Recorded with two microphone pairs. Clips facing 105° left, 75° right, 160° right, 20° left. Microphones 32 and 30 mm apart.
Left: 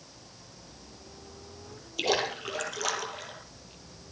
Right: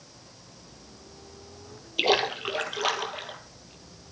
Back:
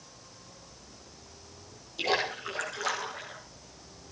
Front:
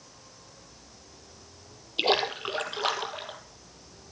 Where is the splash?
20° right, 1.9 m.